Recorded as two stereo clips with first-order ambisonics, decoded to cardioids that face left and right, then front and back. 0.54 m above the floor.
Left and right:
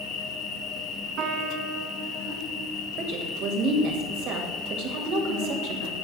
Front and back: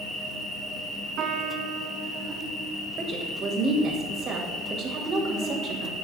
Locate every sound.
0.0 s an insect: 80° left, 3 m
1.2 s a piano: 130° right, 1.4 m
3.0 s a woman speaking: 125° right, 2.5 m